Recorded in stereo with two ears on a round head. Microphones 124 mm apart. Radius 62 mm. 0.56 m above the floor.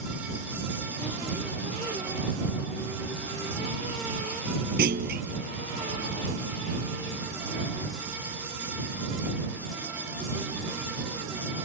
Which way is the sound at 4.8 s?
80° right.